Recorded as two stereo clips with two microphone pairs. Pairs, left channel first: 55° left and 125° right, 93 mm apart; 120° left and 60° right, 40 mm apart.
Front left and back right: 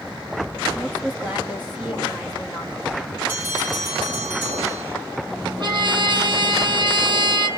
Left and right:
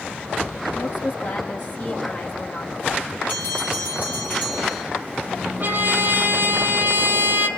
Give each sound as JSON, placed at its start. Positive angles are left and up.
{"t": 0.8, "sound": "a woman speaking", "azimuth_deg": 165, "distance_m": 8.0}
{"t": 3.3, "sound": "a bell", "azimuth_deg": 165, "distance_m": 9.0}
{"t": 5.6, "sound": "a trumpet", "azimuth_deg": -95, "distance_m": 2.5}